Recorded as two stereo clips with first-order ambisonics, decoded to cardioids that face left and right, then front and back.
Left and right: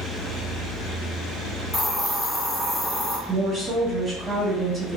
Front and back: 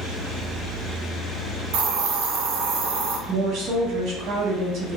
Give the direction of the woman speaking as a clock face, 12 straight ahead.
5 o'clock.